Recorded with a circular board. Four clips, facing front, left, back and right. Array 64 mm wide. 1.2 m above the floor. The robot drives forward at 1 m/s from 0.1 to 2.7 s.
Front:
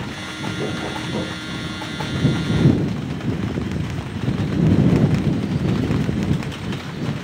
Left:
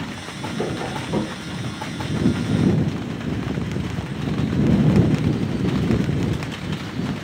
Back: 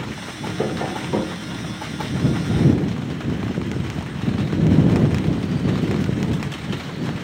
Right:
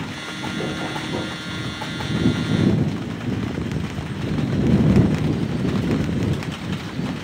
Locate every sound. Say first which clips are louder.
0.6 s tapping: left 2 dB, back 4 dB; 165° left, 3 m; by 1.4 s 170° left, 3.5 m